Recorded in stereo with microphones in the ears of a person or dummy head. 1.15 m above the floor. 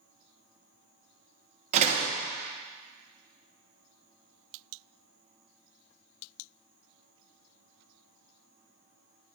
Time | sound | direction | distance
1.7 | a door slam | 40° right (ahead or behind) | 1.1 m